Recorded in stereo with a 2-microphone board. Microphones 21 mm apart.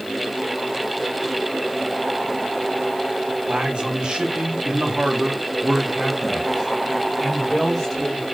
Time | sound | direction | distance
3.5 | a man speaking | 50° right (ahead or behind) | 1.7 m